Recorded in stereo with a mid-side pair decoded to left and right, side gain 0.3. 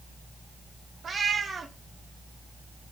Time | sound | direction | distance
1.0 | a cat meowing | 60° right | 1.3 m